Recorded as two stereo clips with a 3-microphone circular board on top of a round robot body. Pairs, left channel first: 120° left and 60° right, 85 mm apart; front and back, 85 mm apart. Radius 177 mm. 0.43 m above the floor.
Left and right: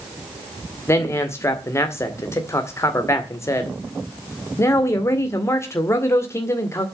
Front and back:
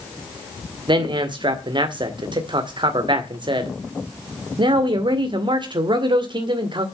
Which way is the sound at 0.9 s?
175° left.